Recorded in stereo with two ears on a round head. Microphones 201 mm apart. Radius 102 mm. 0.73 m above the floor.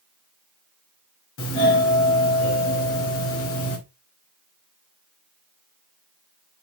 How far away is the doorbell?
About 3 m.